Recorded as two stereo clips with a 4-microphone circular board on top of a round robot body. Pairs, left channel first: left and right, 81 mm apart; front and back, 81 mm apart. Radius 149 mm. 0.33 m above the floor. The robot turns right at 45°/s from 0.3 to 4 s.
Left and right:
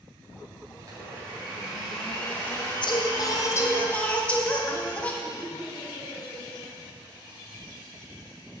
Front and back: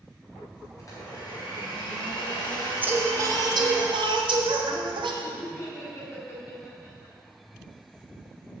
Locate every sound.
0.8 s a blender: 50° right, 3.5 m; by 3.8 s 90° left, 3.5 m
2.8 s singing: 110° left, 1.2 m; by 5.1 s 165° left, 1.2 m
5.2 s laughter: 55° left, 3.5 m